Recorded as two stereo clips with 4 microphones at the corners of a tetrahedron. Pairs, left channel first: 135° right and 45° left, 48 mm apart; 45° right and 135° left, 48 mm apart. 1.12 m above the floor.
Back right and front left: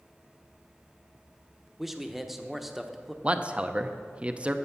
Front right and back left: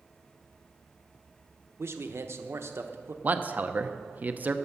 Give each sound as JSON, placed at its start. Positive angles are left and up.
{"t": 1.8, "sound": "a man speaking", "azimuth_deg": 130, "distance_m": 0.9}
{"t": 3.2, "sound": "a man speaking", "azimuth_deg": 100, "distance_m": 0.6}